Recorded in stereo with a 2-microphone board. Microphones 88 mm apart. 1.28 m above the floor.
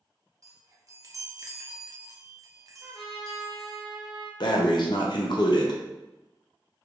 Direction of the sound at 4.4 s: 55° left (ahead or behind).